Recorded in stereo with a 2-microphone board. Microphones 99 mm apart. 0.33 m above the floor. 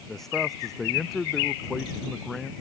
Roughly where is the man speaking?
Centre.